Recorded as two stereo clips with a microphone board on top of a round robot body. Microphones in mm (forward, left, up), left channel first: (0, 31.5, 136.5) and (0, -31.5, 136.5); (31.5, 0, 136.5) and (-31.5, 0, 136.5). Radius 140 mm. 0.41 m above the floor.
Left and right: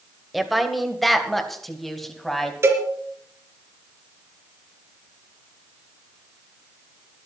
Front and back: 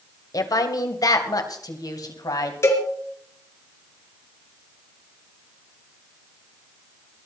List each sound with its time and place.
0.3 s a woman speaking: straight ahead, 2 m; by 2.5 s 5° left, 3.5 m
2.6 s a cowbell: 45° right, 3 m